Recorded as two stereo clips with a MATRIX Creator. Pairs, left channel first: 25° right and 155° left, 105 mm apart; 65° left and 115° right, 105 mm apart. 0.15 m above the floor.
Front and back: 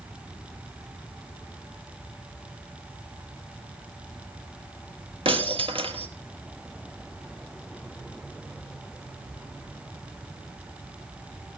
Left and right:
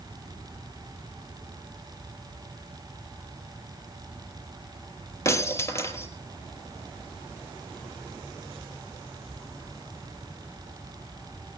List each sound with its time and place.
5.2 s breaking glass: 130° left, 2 m